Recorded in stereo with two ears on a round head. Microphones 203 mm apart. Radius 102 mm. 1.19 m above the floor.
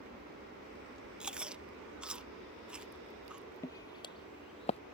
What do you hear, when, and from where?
0.0 s an aircraft: 45° right (ahead or behind); by 5.0 s 65° right (ahead or behind)
1.2 s chewing: 5° right (ahead or behind)
3.6 s footsteps: 15° left (ahead or behind); by 4.8 s 30° left (ahead or behind)